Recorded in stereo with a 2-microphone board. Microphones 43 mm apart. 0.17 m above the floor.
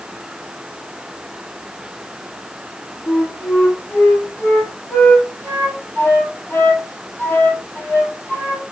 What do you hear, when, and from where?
3.1 s a flute: 70° left (ahead or behind), 5 m